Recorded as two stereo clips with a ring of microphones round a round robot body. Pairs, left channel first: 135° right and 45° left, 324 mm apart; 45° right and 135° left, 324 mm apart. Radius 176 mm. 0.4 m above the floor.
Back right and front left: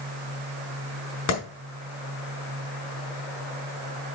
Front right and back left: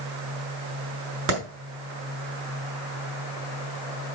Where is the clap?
175° right, 4.5 m.